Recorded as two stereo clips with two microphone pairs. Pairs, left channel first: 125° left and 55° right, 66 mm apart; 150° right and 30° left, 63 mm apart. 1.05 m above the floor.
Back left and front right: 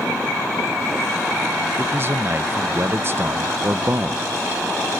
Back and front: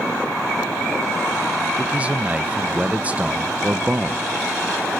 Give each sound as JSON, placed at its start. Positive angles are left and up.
{"t": 1.8, "sound": "a man speaking", "azimuth_deg": -35, "distance_m": 0.8}